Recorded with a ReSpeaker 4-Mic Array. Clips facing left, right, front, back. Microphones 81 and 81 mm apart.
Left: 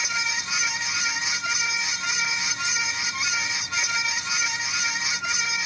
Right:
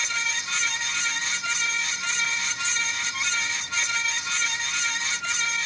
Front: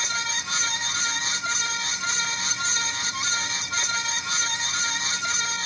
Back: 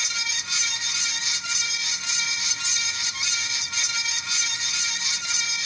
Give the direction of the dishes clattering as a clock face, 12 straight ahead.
I don't hear dishes clattering.